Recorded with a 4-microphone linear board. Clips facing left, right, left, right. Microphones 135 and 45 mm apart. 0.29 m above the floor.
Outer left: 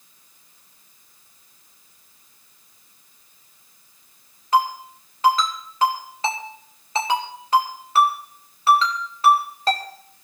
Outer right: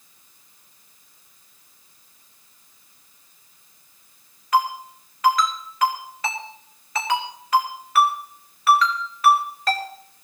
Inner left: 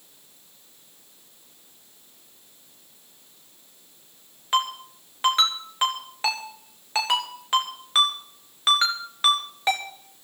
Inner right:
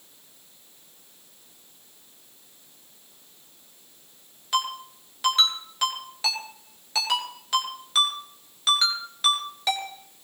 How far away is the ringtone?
About 2.5 m.